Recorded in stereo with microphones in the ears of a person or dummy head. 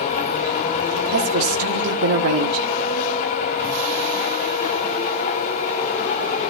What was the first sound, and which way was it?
A machine running, 40° left (ahead or behind).